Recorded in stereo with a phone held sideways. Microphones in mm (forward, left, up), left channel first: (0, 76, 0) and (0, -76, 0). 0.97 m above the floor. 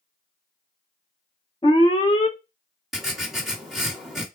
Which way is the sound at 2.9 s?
Centre (ahead or behind).